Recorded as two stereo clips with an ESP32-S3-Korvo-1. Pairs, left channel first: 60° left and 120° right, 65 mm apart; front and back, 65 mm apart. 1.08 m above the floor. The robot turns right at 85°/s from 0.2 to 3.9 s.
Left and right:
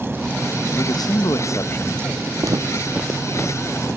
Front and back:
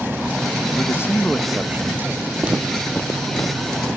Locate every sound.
0.8 s a man speaking: 30° left, 0.8 m; by 2.3 s 165° left, 0.8 m
2.4 s footsteps: 120° right, 2 m; by 4.0 s 80° left, 1.5 m